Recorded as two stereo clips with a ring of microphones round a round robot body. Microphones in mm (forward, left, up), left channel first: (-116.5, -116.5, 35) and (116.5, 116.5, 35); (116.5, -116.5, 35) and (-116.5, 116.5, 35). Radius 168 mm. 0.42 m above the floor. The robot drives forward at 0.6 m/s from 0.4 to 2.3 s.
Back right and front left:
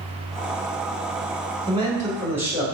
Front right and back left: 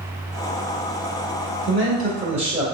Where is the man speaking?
110° left, 1.7 m; by 2.6 s 125° left, 1.8 m.